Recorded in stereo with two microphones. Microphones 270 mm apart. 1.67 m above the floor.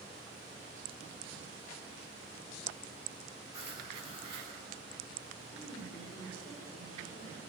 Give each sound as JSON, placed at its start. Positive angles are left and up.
{"t": 3.5, "sound": "writing", "side_deg": -25, "distance_m": 4.5}
{"t": 5.5, "sound": "a woman speaking", "side_deg": 15, "distance_m": 4.5}